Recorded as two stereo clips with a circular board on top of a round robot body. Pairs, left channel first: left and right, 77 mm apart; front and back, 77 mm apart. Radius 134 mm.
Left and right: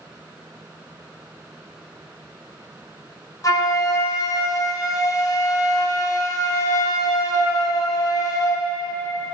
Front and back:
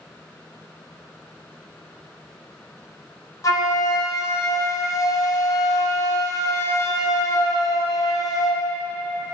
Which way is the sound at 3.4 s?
45° left.